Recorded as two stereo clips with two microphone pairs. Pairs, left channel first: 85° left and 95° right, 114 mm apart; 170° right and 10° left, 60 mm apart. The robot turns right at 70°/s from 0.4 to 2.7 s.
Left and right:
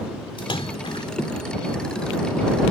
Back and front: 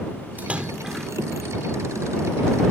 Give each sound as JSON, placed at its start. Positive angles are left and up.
{"t": 0.4, "sound": "a splash", "azimuth_deg": 60}